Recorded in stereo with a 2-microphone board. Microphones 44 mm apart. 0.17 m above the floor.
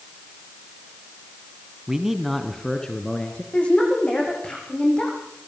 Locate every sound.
1.9 s a man speaking: 15° right (ahead or behind), 1.4 m; by 3.4 s 25° left (ahead or behind), 2.5 m
3.5 s a woman speaking: 25° left (ahead or behind), 9.5 m